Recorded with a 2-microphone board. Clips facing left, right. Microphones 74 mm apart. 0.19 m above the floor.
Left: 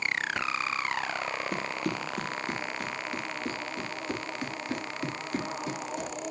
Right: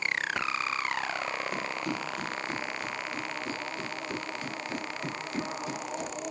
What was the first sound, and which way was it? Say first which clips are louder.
Running footsteps: left 1 dB; 65° left (ahead or behind).